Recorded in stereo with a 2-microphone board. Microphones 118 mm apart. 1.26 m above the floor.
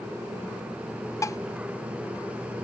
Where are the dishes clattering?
25° left (ahead or behind).